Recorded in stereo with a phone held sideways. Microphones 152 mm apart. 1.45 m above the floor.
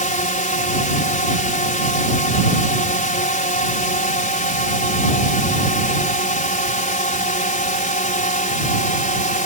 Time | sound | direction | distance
0.0 | a drone | 60° left (ahead or behind) | ?